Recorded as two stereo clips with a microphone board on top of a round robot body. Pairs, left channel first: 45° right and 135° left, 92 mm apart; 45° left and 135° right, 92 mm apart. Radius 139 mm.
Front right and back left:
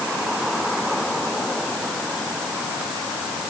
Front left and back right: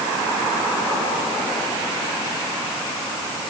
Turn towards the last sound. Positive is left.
No sound to turn to.